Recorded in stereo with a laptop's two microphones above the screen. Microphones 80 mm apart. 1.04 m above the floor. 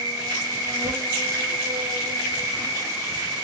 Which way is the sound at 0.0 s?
30° right (ahead or behind).